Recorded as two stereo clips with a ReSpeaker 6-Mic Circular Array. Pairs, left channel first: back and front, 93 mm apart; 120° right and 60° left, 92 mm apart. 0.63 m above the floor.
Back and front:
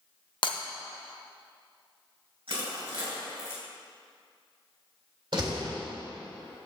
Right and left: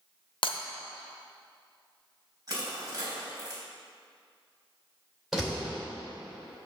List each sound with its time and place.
0.4 s breaking glass: 145° right, 0.9 m
2.5 s crushing: 10° left, 3 m
5.3 s a door slam: 30° right, 2 m